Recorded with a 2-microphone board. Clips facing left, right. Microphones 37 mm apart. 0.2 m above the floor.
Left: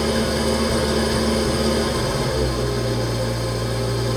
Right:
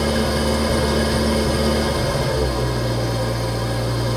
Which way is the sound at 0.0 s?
5° right (ahead or behind).